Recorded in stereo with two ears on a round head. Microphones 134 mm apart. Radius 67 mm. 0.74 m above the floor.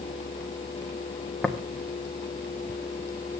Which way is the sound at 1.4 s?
5° left (ahead or behind).